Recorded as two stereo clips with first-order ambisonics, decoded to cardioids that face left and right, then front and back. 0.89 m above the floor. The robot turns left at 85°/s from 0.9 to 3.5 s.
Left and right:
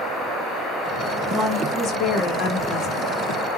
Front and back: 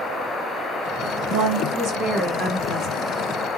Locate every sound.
1.3 s a woman speaking: 175° right, 1.4 m; by 3.0 s 45° left, 1.4 m